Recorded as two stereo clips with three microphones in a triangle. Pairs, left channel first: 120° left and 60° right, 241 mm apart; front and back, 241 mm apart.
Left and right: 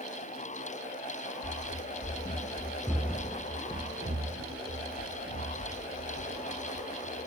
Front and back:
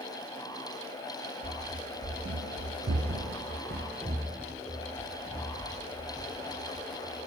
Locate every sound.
1.4 s running footsteps: 145° left, 1.0 m; by 7.3 s 90° right, 2.5 m